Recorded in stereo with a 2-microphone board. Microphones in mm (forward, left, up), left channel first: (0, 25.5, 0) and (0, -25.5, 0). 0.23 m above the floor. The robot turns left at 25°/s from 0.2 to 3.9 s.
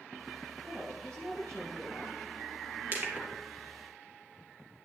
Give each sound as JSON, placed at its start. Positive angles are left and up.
{"t": 0.6, "sound": "a woman speaking", "azimuth_deg": -80, "distance_m": 7.0}
{"t": 2.9, "sound": "crushing", "side_deg": -35, "distance_m": 2.5}